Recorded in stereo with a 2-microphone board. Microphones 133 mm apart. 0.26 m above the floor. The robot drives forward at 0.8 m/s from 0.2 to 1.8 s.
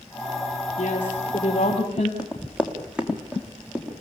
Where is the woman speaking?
50° left (ahead or behind), 6 m; by 2.1 s 45° left (ahead or behind), 6.5 m.